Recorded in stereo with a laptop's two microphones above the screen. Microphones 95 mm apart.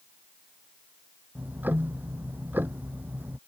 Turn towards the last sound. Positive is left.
turn(degrees=-20)  # may be behind; listen again after turning